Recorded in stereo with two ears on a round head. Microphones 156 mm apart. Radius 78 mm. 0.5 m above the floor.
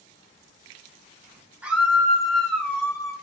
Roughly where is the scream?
Centre.